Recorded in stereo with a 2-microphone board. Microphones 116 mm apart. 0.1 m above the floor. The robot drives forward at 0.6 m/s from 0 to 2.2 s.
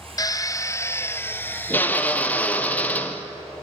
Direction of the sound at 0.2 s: 35° left (ahead or behind).